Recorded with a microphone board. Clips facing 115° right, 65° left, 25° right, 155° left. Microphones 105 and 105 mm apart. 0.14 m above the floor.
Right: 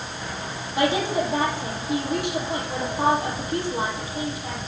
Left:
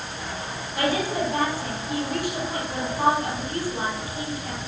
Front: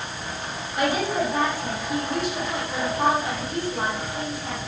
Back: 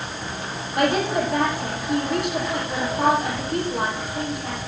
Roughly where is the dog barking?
I don't hear a dog barking.